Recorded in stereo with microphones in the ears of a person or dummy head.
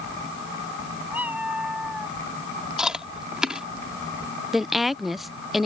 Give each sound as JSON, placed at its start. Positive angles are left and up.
{"t": 1.1, "sound": "a cat meowing", "side_deg": -5}
{"t": 2.8, "sound": "chewing", "side_deg": -5}
{"t": 4.5, "sound": "a woman speaking", "side_deg": 0}